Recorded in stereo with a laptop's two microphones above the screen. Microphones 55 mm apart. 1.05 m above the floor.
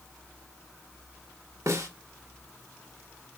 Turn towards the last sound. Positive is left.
turn(degrees=-70)  # may be behind; listen again after turning